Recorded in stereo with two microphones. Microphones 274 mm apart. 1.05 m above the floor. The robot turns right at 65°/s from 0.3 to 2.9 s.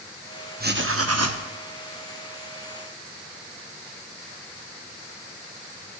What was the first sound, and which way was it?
Writing, 145° right.